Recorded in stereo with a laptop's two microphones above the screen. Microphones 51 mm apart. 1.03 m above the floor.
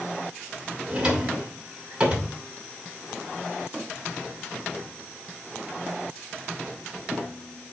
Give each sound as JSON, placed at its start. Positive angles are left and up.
{"t": 0.9, "sound": "a drawer", "side_deg": -20, "distance_m": 2.5}